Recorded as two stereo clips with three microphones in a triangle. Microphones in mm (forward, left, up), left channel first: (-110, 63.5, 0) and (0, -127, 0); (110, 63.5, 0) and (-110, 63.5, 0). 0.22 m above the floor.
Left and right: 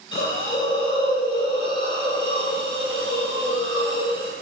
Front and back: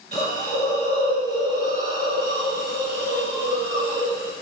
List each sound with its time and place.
0.1 s a hiss: 55° left, 1.9 m